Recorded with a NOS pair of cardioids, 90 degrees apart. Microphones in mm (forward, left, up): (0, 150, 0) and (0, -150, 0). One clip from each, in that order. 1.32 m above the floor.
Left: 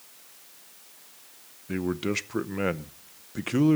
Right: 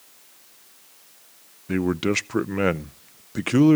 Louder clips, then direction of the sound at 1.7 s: Right 6 dB; 30° right.